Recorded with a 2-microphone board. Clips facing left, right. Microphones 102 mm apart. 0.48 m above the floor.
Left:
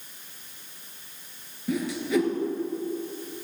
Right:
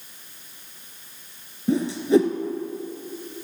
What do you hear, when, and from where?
1.7 s a whoosh: 35° right (ahead or behind), 1.1 m